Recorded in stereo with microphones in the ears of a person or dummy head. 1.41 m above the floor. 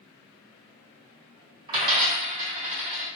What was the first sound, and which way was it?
A dropped coin, 25° right (ahead or behind).